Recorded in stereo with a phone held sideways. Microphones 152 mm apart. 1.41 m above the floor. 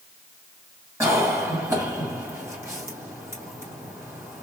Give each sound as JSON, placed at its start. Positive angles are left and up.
{"t": 1.0, "sound": "a cough", "side_deg": -20, "distance_m": 2.5}